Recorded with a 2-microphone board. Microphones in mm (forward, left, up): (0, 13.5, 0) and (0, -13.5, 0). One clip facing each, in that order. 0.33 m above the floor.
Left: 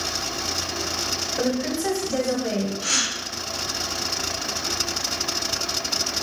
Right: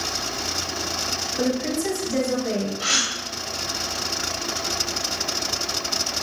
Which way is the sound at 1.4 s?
30° left (ahead or behind).